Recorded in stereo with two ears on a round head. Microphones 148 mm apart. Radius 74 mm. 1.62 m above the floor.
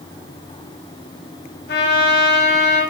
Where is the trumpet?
70° left (ahead or behind), 3.5 m.